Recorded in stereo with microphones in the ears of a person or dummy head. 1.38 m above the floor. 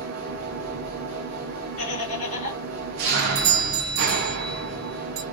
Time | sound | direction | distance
0.0 | an engine running | 60° right (ahead or behind) | 0.8 m
1.8 | laughter | 35° left (ahead or behind) | 2.5 m
3.1 | a doorbell | 75° right (ahead or behind) | 1.0 m